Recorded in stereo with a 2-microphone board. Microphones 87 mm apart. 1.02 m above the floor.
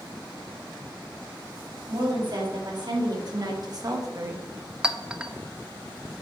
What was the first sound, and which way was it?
A woman speaking, 55° right (ahead or behind).